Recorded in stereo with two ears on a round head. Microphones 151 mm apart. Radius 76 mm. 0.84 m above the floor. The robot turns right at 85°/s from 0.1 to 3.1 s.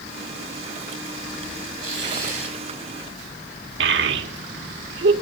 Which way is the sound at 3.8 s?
75° right (ahead or behind).